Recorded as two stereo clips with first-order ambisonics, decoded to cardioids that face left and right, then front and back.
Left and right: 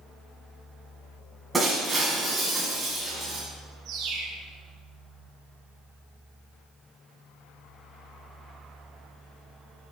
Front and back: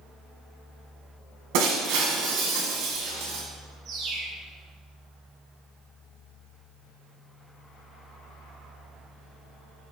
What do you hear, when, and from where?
1.5 s breaking glass: 175° right, 6.5 m
3.9 s a bird: 130° right, 4.5 m